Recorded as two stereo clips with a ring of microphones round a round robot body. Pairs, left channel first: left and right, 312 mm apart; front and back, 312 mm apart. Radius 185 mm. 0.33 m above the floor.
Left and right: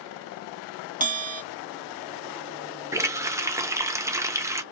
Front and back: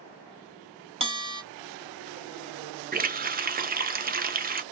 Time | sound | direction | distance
1.0 | a bell | 125° right | 1.4 m
2.9 | a running tap | 160° right | 0.6 m